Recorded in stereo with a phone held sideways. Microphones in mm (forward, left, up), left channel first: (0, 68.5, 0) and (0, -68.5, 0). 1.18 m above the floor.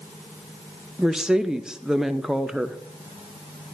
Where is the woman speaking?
5° right (ahead or behind), 0.8 m.